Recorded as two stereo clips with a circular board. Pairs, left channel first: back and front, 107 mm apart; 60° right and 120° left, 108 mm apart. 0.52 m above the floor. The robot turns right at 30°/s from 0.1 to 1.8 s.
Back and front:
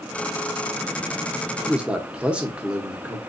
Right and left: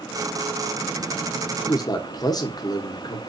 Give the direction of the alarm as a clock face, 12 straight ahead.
I don't hear an alarm.